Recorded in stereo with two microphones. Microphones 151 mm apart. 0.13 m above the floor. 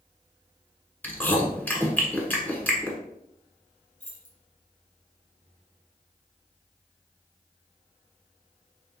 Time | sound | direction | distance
1.0 | chewing | 10° left (ahead or behind) | 1.1 m
4.0 | keys jangling | 60° left (ahead or behind) | 2.0 m